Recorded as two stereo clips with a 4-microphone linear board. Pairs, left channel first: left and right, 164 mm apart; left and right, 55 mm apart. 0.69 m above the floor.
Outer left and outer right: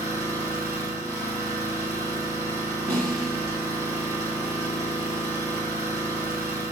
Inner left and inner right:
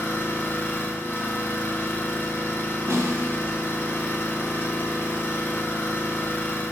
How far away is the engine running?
About 2.5 m.